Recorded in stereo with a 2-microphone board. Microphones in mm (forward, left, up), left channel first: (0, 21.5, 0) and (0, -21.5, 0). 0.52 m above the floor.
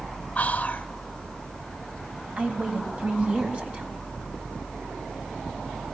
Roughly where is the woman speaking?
Right.